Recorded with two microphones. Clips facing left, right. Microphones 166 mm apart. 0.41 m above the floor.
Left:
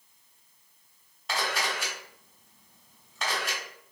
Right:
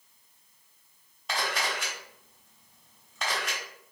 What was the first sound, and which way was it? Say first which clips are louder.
A camera shutter: left 1 dB; centre (ahead or behind).